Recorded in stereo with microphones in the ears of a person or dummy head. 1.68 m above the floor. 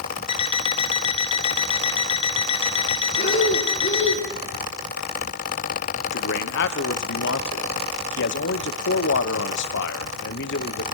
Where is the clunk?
No clunk in this recording.